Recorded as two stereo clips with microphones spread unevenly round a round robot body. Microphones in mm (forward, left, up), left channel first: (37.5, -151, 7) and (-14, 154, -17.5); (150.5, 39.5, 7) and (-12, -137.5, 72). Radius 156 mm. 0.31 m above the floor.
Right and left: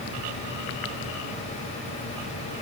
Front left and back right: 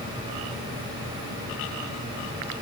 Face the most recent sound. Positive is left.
No sound to turn to.